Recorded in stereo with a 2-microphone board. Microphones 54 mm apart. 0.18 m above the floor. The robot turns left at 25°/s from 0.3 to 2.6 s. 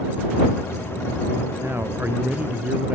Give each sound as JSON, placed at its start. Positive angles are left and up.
{"t": 1.6, "sound": "a man speaking", "side_deg": -55}